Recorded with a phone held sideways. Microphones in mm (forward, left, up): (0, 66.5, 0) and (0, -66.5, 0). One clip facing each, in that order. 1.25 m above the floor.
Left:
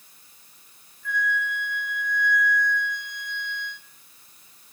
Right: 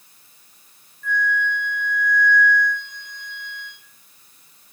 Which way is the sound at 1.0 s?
80° right.